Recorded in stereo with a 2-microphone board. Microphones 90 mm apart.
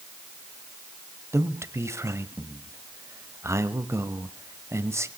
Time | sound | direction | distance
1.3 | a man speaking | 30° right (ahead or behind) | 1.1 m